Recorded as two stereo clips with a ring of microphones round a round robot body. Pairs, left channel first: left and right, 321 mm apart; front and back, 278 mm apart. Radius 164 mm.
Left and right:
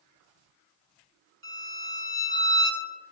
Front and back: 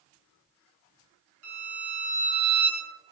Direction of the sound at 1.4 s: 140° right.